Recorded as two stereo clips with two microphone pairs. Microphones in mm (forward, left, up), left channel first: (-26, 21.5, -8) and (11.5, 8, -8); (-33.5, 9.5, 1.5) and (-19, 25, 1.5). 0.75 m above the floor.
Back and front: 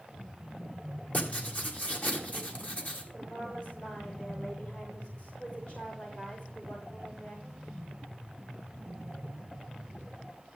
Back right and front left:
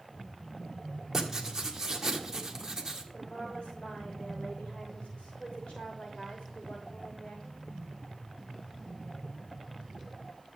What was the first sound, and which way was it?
Writing, 115° left.